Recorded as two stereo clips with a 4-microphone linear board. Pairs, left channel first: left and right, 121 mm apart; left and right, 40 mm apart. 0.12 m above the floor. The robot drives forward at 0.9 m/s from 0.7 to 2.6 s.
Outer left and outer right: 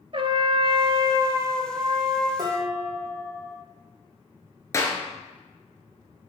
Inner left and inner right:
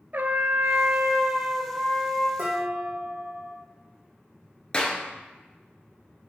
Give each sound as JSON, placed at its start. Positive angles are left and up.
{"t": 0.1, "sound": "a trumpet", "side_deg": -50, "distance_m": 0.6}
{"t": 2.4, "sound": "dishes clattering", "side_deg": -35, "distance_m": 4.0}
{"t": 4.7, "sound": "a clap", "side_deg": 25, "distance_m": 1.6}